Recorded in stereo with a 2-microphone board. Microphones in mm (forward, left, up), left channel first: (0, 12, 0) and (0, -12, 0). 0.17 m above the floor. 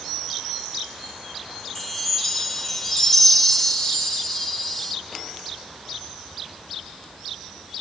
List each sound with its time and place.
1.8 s a chime: 15° left (ahead or behind), 0.8 m